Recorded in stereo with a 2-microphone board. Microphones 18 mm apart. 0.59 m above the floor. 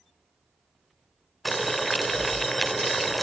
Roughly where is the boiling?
Centre.